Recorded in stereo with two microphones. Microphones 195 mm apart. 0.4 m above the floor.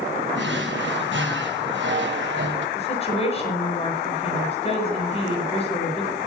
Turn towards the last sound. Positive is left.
turn(degrees=35)  # may be behind; listen again after turning